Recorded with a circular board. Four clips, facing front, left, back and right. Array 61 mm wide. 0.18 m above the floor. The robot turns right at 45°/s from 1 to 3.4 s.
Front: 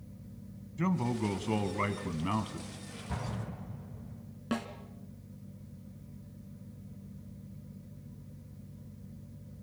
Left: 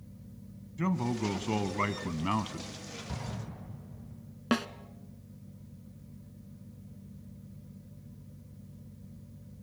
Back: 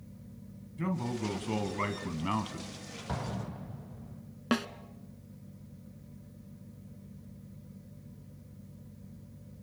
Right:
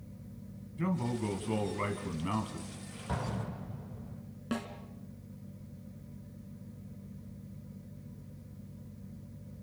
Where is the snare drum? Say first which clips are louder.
Left 7 dB, back 4 dB; 130° left, 1.2 m.